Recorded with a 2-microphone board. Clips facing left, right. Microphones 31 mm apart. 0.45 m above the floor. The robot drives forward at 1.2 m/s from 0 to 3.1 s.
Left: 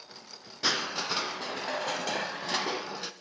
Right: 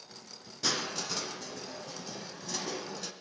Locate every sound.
0.6 s crushing: 20° left (ahead or behind), 1.8 m; by 3.1 s 30° left (ahead or behind), 1.5 m